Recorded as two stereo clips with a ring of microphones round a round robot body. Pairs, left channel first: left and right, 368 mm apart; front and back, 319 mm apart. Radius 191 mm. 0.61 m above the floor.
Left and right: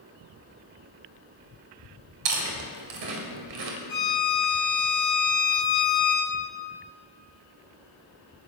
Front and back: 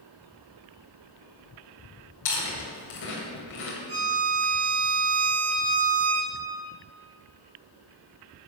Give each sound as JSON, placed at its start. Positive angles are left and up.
{"t": 2.2, "sound": "chewing", "azimuth_deg": -60, "distance_m": 2.0}
{"t": 3.9, "sound": "a violin", "azimuth_deg": 170, "distance_m": 3.5}